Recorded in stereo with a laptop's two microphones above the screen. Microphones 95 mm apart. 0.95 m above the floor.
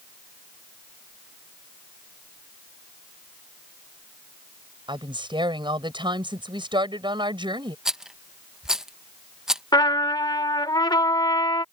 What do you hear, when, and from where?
4.9 s a woman speaking: 55° right (ahead or behind)
7.8 s a rattle: 5° right (ahead or behind)
9.7 s a trumpet: 50° left (ahead or behind)